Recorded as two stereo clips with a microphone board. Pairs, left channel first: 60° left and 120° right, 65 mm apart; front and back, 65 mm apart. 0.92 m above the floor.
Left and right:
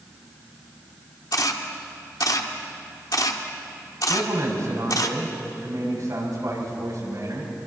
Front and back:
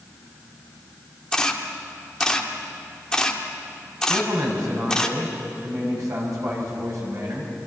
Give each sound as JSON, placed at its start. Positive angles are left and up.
{"t": 1.3, "sound": "a camera shutter", "azimuth_deg": 80, "distance_m": 1.5}
{"t": 4.1, "sound": "a man speaking", "azimuth_deg": -150, "distance_m": 6.5}